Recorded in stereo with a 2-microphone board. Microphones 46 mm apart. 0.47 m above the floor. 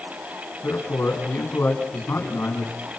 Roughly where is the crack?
No crack in this recording.